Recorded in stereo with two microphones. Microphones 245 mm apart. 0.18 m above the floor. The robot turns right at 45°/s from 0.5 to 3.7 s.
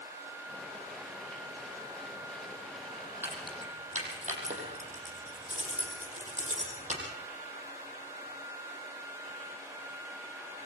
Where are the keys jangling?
10° right (ahead or behind), 5 m; by 7.0 s 30° right (ahead or behind), 5 m.